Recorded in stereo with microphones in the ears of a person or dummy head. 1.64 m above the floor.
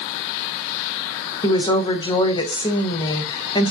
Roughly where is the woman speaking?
Centre.